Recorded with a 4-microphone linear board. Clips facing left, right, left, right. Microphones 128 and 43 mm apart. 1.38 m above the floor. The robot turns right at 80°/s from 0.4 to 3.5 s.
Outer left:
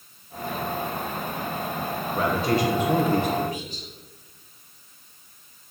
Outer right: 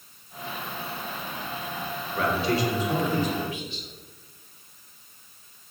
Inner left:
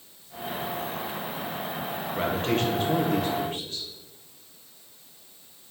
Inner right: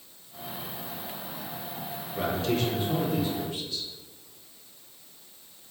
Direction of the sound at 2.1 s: 25° left.